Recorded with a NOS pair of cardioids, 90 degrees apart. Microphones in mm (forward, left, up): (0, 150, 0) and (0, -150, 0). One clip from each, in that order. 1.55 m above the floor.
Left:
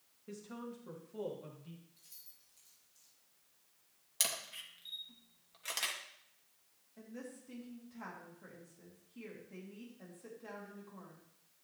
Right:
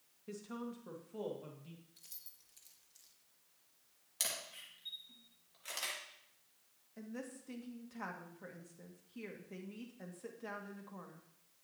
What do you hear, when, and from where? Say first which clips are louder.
0.3 s a woman speaking: right 1 dB; 15° right, 1.9 m; by 1.8 s 10° right, 2.5 m
2.0 s keys jangling: right 2 dB; 50° right, 1.6 m
4.2 s a camera shutter: left 3 dB; 30° left, 2 m
7.0 s a woman speaking: right 2 dB; 35° right, 2 m